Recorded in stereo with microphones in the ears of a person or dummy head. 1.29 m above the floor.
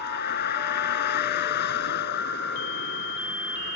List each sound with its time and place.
0.0 s a vehicle: 55° left (ahead or behind)